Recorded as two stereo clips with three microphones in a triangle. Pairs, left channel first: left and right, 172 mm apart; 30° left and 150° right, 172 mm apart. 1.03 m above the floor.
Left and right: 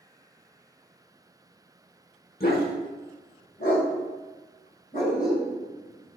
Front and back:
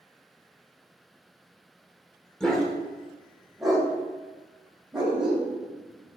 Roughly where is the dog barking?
Behind left.